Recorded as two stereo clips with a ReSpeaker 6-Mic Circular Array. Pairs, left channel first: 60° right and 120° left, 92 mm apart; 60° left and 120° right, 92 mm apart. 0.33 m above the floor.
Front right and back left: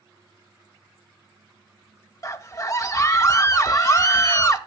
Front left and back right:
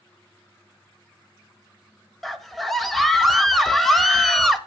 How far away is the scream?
About 1.1 m.